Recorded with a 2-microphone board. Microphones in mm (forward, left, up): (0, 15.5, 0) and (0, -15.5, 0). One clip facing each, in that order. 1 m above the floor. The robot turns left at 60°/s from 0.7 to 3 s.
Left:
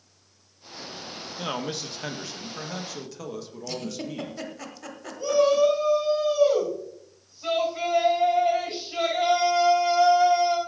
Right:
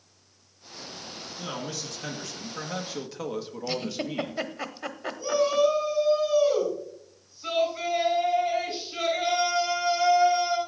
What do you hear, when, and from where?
1.4 s a man speaking: 80° left, 1.1 m; by 4.4 s 20° right, 1.1 m
3.7 s a giggle: 30° right (ahead or behind), 0.8 m
5.2 s a shout: 60° left (ahead or behind), 6 m